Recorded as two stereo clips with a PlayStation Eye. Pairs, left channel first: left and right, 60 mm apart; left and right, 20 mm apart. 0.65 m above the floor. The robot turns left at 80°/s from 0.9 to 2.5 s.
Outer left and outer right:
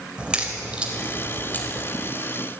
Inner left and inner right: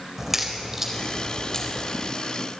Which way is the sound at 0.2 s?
15° right (ahead or behind).